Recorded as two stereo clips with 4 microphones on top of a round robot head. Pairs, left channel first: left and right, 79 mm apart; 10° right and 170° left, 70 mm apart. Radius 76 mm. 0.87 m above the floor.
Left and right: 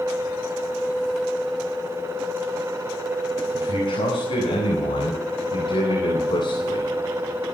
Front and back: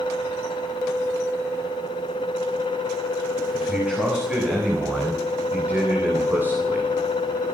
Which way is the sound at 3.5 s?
100° left.